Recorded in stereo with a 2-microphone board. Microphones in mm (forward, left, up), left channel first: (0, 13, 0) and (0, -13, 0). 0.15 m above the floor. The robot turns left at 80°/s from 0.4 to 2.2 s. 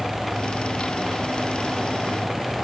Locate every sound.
Only background noise.